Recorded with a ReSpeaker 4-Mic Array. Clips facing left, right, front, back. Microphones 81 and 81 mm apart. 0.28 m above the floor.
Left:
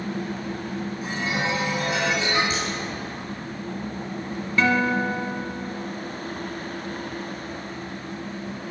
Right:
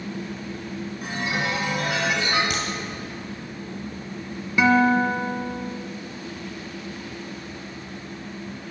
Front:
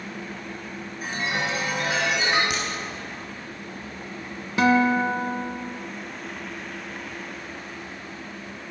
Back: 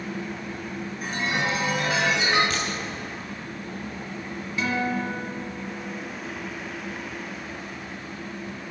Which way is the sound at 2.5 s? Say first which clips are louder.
Even, even; 75° right.